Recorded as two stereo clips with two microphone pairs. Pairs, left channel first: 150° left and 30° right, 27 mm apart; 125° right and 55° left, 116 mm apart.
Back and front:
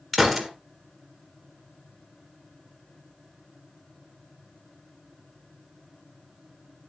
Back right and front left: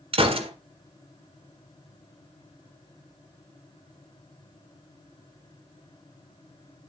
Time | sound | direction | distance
0.1 | a gunshot | 65° left | 1.6 m